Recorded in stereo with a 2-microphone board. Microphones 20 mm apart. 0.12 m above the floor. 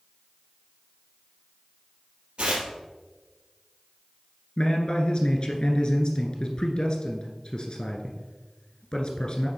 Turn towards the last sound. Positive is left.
turn(degrees=45)  # may be behind; listen again after turning